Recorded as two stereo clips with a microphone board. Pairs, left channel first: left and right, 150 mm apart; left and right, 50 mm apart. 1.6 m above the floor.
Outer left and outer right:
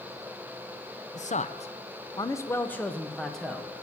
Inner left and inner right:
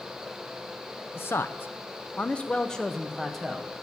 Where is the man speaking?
50° left (ahead or behind), 0.7 m; by 3.8 s centre (ahead or behind), 1.7 m.